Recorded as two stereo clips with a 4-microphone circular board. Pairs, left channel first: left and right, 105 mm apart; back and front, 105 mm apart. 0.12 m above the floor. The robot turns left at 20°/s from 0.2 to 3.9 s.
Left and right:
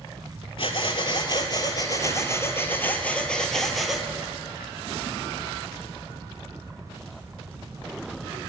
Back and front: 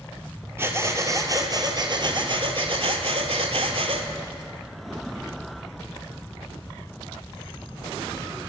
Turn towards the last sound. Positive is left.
turn(degrees=0)